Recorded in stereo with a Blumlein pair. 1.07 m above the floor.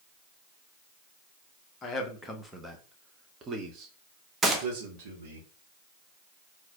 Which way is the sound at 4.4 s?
10° right.